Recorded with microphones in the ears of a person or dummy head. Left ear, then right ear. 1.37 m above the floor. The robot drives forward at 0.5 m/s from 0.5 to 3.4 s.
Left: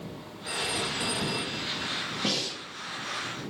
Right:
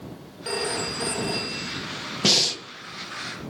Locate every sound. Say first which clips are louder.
0.5 s a phone ringing: right 3 dB; 50° right (ahead or behind), 2.5 m; by 1.9 s 65° right (ahead or behind), 2 m
2.2 s breathing: right 12 dB; 75° right (ahead or behind), 0.9 m; by 2.6 s 85° right, 0.9 m